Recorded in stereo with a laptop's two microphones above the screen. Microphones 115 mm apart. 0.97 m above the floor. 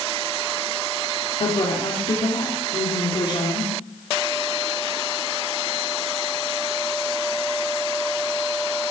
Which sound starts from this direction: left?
A woman speaking, at 1.4 s.